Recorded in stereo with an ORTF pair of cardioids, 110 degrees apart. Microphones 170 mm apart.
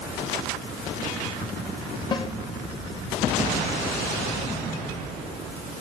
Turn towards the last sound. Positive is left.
turn(degrees=25)